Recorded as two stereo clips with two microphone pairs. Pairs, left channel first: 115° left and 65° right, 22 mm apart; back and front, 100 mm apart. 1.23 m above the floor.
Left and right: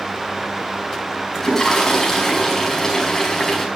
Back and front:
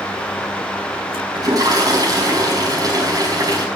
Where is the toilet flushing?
50° left, 5 m.